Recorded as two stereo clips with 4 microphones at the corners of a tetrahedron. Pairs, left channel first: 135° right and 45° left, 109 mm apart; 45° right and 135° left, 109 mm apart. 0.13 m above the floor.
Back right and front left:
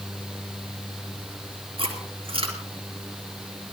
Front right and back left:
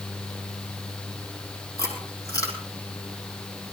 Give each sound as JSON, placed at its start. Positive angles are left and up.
{"t": 1.8, "sound": "chewing", "azimuth_deg": 10, "distance_m": 4.0}